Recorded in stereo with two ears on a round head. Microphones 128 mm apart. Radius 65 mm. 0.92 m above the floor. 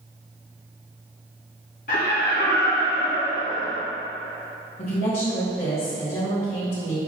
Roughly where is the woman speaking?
Left.